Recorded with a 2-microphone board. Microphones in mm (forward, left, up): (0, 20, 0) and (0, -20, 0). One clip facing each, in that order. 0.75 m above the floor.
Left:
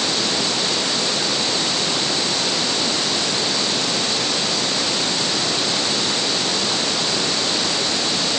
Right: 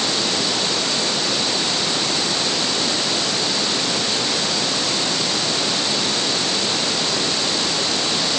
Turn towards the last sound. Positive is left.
No sound to turn to.